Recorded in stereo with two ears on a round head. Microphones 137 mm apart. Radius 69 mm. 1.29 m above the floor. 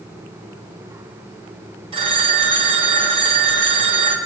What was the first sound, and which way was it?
A phone ringing, 35° right (ahead or behind).